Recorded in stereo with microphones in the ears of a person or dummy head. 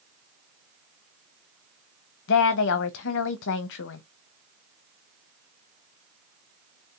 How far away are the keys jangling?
No keys jangling in this recording.